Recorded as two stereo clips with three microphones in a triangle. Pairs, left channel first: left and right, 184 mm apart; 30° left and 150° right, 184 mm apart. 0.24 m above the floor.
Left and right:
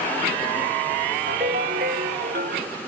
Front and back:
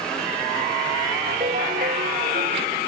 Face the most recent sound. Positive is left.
turn(degrees=-115)